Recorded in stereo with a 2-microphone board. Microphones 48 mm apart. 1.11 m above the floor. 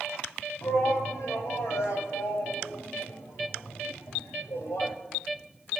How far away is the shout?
About 7 m.